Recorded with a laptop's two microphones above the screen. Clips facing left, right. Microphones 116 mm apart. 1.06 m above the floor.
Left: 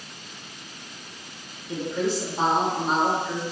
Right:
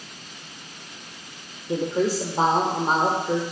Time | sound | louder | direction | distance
1.7 | a woman speaking | right 3 dB | 35° right (ahead or behind) | 0.6 m